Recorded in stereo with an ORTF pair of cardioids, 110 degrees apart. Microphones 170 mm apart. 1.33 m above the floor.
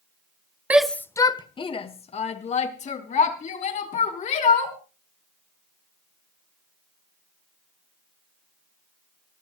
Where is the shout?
10° right, 0.7 m; by 4.8 s 50° left, 4.5 m.